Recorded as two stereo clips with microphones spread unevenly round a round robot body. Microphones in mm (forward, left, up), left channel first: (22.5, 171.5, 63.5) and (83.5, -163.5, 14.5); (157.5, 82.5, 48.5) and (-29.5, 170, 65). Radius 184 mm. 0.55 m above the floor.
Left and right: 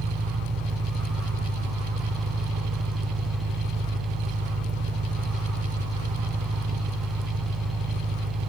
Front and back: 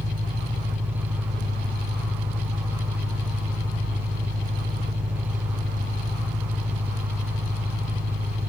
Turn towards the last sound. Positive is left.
turn(degrees=-145)